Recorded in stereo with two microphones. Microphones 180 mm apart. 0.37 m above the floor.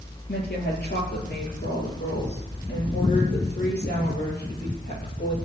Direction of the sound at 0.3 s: 70° left (ahead or behind).